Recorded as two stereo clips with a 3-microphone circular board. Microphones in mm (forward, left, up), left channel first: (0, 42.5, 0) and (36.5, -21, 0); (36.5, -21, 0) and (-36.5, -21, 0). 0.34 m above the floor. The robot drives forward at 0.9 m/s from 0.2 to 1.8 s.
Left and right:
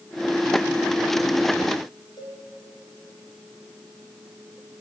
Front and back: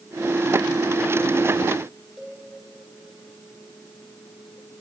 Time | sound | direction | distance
2.2 | a cowbell | 100° left | 6.5 m